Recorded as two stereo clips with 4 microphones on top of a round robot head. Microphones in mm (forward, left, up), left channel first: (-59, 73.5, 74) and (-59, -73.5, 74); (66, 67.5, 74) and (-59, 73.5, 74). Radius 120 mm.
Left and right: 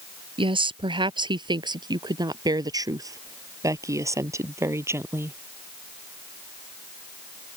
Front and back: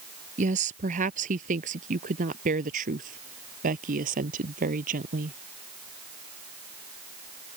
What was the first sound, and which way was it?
A woman speaking, 145° right.